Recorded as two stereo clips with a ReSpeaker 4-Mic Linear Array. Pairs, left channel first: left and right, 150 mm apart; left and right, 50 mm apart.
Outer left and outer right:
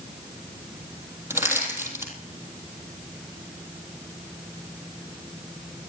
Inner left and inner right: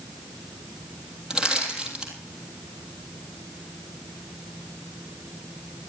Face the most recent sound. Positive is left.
turn(degrees=-15)  # may be behind; listen again after turning